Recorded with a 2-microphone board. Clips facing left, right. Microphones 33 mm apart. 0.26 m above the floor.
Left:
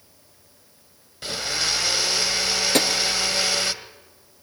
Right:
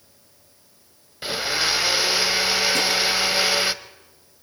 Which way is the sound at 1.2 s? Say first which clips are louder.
Right 3 dB; 20° right (ahead or behind).